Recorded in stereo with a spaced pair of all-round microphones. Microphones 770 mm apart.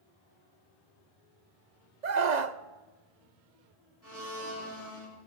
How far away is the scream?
About 1.1 m.